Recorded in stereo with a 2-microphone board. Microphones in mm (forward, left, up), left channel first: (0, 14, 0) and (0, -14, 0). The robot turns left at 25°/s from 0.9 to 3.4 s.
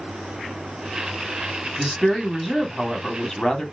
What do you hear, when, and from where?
1.8 s a woman speaking: 160° right, 1.2 m; by 3.6 s 160° left, 1.2 m